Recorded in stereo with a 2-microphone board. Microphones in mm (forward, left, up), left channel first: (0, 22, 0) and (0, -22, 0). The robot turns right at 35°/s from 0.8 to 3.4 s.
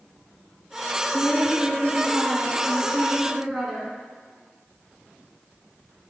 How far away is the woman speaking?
About 1.5 m.